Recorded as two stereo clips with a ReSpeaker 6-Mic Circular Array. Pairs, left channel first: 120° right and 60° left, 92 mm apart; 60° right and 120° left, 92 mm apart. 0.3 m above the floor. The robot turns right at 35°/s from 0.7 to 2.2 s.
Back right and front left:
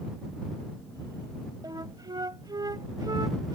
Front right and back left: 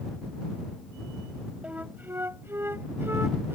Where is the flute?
50° left; by 3.5 s 65° left.